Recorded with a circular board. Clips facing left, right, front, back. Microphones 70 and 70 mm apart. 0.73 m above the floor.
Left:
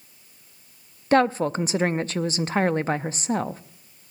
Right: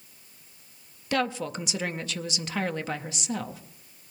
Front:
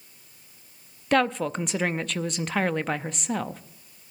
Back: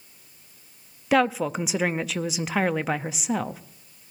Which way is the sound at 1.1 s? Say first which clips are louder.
Left 9 dB, back 1 dB; 100° left.